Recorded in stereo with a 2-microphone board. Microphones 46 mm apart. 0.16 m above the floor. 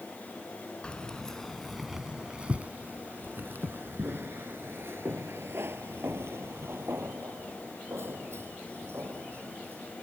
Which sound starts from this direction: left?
Keys jangling, at 0.8 s.